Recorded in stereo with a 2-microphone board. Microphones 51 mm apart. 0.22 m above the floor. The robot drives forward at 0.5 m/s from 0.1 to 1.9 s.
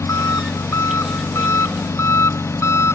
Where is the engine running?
70° left (ahead or behind); by 3.0 s 65° left (ahead or behind).